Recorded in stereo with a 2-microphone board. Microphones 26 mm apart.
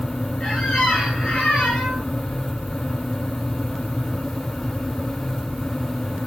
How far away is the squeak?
About 10 m.